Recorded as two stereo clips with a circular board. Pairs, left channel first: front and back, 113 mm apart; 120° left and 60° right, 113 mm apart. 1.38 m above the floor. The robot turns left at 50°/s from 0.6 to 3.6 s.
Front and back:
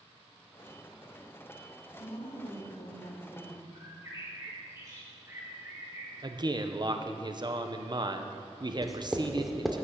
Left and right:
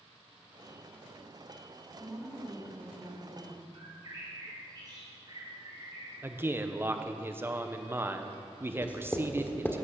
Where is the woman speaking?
20° left, 3 m; by 3.6 s 60° right, 3 m.